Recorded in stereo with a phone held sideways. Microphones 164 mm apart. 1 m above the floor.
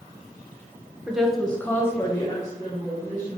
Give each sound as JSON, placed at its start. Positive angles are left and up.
{"t": 1.1, "sound": "a woman speaking", "side_deg": -5, "distance_m": 0.5}